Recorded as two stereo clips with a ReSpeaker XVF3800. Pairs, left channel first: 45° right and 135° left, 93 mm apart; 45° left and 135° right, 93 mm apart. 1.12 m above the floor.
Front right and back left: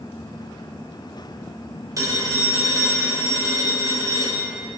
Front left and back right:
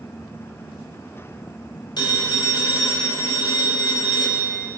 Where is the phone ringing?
80° left, 3 m.